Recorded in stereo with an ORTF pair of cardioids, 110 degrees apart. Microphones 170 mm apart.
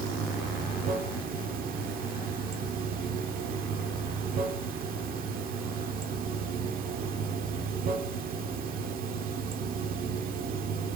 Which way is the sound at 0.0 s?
60° right.